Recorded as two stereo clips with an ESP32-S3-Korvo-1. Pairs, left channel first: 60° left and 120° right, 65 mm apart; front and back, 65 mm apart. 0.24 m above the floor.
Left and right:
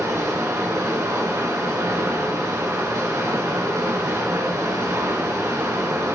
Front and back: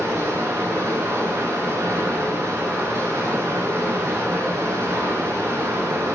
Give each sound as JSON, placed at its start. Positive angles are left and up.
{"t": 0.0, "sound": "running water", "azimuth_deg": -140, "distance_m": 2.5}